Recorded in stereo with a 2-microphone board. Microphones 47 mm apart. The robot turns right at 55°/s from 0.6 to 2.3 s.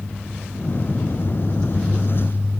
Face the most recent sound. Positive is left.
No sound to turn to.